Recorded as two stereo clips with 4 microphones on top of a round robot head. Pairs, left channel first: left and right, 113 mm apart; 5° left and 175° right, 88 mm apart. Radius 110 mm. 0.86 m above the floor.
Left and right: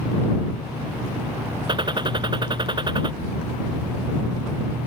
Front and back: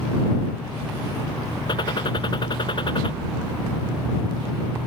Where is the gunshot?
40° right.